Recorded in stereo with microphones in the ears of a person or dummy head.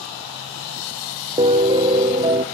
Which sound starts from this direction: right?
A piano, at 1.4 s.